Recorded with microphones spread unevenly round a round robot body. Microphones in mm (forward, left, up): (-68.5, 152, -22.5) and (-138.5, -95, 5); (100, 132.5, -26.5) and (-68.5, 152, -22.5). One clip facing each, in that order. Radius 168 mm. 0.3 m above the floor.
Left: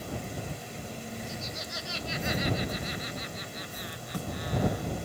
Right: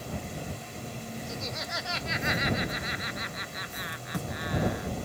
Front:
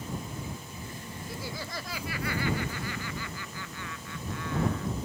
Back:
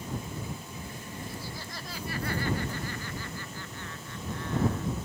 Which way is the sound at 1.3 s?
55° right.